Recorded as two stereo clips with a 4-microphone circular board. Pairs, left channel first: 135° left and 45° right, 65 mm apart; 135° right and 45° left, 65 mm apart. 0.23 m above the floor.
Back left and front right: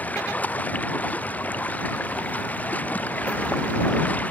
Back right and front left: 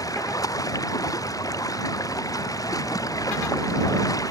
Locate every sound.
0.0 s running water: 160° right